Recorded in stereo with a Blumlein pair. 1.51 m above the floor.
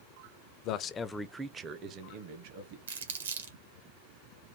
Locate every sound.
0.6 s a man speaking: 40° left, 0.7 m; by 2.8 s 55° right, 1.4 m
2.9 s crumpling: 65° right, 1.4 m